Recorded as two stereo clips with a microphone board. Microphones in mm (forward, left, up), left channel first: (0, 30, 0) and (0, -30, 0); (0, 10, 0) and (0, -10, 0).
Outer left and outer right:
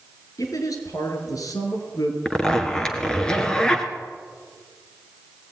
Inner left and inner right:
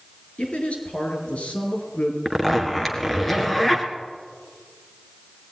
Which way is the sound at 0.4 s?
70° left (ahead or behind).